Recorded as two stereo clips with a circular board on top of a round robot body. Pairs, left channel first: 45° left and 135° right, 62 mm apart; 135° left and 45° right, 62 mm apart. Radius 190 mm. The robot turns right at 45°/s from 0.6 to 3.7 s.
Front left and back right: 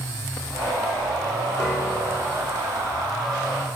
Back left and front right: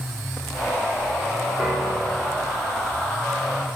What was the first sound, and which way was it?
A piano, 35° left.